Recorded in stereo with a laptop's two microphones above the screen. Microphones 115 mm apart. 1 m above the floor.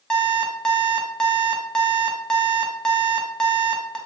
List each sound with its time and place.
0.1 s an alarm clock: 5° left (ahead or behind), 0.5 m